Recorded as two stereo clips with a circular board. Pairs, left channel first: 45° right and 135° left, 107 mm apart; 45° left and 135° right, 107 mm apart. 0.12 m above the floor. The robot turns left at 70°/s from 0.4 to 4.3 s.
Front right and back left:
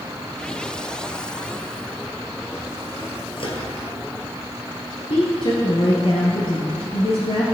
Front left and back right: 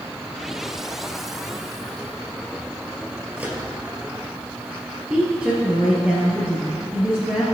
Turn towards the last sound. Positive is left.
turn(degrees=-55)